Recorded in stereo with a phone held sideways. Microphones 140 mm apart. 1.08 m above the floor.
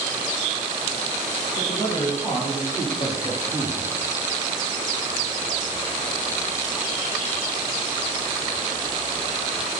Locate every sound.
1.6 s a man speaking: 35° left (ahead or behind), 4 m; by 3.9 s 70° left (ahead or behind), 1.8 m